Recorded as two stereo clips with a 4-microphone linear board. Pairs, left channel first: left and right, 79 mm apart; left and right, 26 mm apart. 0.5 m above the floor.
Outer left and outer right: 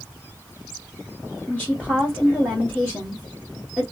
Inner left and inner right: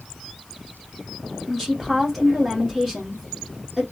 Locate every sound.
1.5 s a woman speaking: 15° left (ahead or behind), 1.6 m